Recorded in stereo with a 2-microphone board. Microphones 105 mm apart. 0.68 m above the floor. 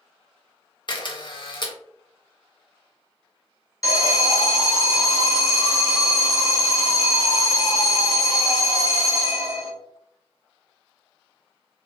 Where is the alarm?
30° left (ahead or behind), 0.8 m.